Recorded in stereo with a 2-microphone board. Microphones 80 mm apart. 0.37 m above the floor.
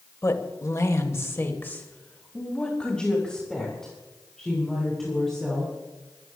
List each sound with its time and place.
0.2 s a woman speaking: 40° left (ahead or behind), 1.8 m; by 5.7 s centre (ahead or behind), 6.5 m